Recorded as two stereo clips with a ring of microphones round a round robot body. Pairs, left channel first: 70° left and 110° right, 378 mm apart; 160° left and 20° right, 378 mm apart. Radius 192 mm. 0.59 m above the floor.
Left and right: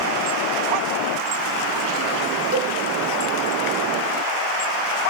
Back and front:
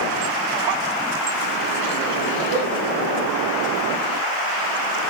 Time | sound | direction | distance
2.5 | a cowbell | 80° right | 3 m